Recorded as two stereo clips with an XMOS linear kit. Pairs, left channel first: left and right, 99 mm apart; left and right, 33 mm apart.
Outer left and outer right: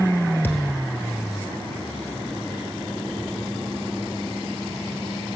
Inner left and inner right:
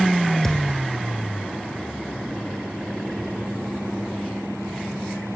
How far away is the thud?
About 1.1 m.